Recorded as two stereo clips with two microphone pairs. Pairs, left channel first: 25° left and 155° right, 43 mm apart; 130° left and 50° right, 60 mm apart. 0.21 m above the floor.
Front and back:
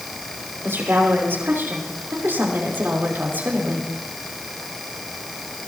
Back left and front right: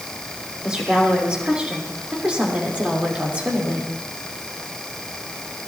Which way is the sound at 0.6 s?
130° right.